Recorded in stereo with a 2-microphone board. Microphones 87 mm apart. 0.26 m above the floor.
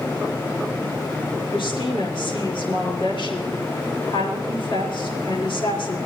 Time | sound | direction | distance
1.5 | a woman speaking | 65° left (ahead or behind) | 4.5 m